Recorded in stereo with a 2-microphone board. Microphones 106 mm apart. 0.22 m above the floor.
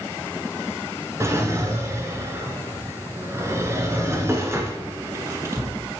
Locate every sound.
1.2 s a drawer: 25° right (ahead or behind), 1.4 m